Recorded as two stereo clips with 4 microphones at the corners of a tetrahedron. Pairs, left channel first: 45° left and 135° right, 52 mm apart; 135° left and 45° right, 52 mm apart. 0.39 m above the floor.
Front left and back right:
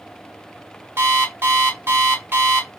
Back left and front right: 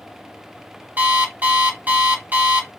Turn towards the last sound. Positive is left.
turn(degrees=-100)